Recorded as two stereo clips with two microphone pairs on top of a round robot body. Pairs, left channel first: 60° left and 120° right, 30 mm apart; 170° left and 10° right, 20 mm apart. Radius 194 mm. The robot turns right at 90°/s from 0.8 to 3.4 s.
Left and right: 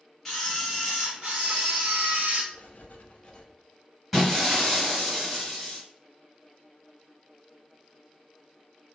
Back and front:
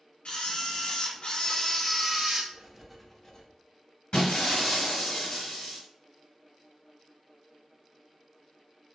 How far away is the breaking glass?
About 2.0 m.